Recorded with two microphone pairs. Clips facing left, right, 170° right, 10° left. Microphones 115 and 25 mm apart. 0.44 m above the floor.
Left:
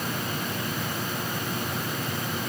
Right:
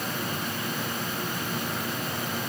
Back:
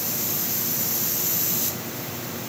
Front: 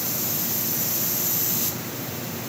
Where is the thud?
No thud in this recording.